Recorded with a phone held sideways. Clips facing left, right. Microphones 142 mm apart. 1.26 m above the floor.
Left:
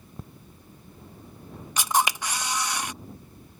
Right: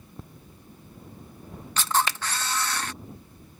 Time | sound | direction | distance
1.8 | a camera shutter | 15° left (ahead or behind) | ?